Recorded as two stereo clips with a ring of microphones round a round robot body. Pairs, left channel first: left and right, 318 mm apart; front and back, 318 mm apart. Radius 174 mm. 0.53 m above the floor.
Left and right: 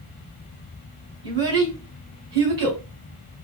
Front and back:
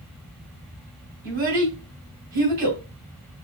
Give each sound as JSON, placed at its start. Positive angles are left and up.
{"t": 1.2, "sound": "a child speaking", "azimuth_deg": -145, "distance_m": 3.0}